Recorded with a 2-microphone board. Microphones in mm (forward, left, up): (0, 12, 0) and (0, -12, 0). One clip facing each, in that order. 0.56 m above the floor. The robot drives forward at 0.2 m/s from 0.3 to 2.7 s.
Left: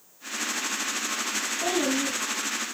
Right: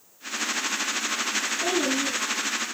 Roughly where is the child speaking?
Left.